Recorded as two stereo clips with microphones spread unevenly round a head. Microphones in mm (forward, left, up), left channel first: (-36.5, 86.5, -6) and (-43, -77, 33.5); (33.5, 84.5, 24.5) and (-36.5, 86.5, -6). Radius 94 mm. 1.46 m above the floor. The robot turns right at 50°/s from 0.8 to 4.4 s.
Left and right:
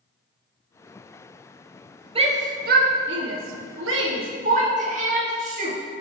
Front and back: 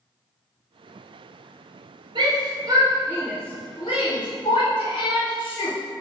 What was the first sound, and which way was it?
A shout, 150° right.